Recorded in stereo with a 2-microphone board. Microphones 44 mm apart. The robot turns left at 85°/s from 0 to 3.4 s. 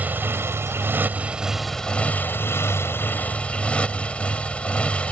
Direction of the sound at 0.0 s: 40° right.